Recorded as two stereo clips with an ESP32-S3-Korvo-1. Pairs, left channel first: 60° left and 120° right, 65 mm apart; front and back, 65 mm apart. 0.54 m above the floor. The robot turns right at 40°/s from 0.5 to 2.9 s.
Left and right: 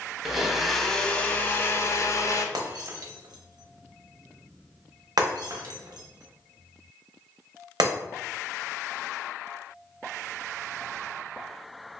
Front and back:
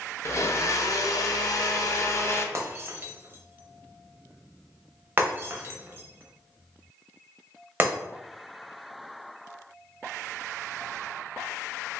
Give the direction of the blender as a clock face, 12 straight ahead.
1 o'clock.